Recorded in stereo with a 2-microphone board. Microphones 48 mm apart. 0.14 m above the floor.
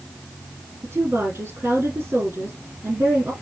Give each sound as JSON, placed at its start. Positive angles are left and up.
{"t": 0.8, "sound": "a woman speaking", "side_deg": -55, "distance_m": 4.0}